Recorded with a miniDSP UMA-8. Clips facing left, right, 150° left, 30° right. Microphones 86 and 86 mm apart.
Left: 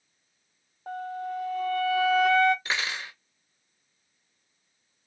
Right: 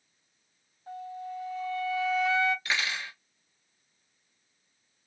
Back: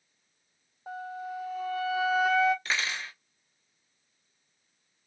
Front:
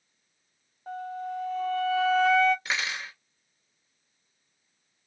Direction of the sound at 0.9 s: 65° left.